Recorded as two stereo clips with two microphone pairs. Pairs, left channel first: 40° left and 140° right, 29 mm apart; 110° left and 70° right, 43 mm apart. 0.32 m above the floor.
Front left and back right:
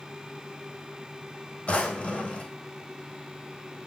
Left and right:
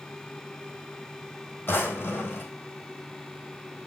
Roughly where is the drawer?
Left.